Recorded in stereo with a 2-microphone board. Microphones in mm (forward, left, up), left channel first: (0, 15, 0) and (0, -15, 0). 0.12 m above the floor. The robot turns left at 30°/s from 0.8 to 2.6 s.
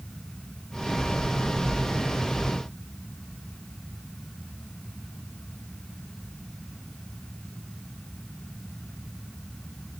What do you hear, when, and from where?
Only background noise.